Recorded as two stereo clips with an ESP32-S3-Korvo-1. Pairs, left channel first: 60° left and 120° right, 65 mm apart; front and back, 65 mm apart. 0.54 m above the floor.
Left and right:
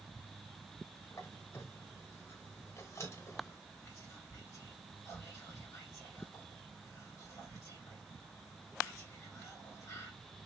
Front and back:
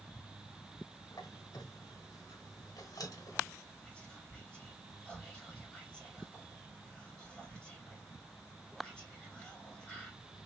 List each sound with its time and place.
1.1 s a squeak: 20° left, 0.8 m
3.8 s whispering: 70° left, 2 m